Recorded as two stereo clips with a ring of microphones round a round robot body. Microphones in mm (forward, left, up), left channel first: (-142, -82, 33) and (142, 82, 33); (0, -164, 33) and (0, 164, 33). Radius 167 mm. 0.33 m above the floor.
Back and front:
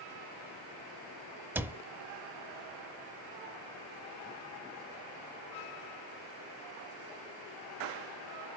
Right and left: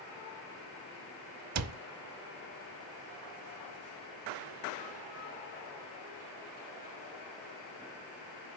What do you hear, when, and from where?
1.6 s a cupboard door: 110° left, 0.6 m